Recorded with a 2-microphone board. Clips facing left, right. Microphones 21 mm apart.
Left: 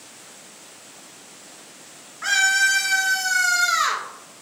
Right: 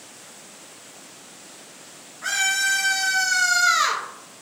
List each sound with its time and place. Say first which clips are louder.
2.2 s a scream: left 4 dB; 25° left (ahead or behind), 0.9 m; by 4.0 s 45° right (ahead or behind), 1.2 m